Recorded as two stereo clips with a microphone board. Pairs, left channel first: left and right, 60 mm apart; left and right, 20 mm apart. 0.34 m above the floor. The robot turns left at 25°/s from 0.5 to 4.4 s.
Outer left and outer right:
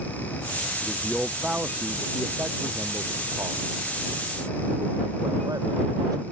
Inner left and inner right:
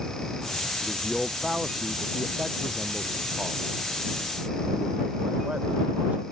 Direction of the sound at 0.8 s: Straight ahead.